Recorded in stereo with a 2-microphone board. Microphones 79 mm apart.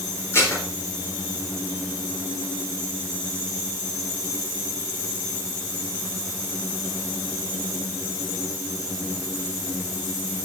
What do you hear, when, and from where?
0.3 s dishes clattering: 35° left (ahead or behind), 3.5 m